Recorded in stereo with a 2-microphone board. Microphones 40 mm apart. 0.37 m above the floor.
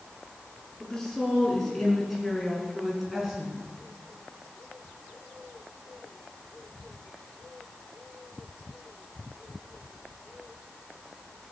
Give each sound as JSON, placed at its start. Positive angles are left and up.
{"t": 0.8, "sound": "a woman speaking", "side_deg": 10, "distance_m": 5.5}